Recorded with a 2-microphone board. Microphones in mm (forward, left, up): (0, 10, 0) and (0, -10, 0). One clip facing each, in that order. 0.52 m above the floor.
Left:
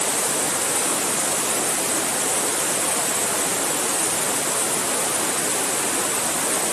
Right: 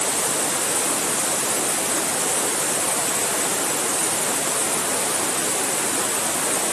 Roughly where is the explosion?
No explosion in this recording.